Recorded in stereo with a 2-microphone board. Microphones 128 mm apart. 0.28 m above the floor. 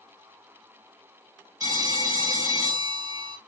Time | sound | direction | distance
1.6 | a phone ringing | 30° right (ahead or behind) | 1.2 m